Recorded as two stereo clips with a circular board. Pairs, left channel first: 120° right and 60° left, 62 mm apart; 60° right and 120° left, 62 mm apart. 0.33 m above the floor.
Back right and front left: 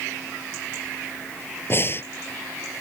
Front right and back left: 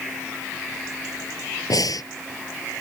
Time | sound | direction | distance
1.7 | breathing | 65° right | ?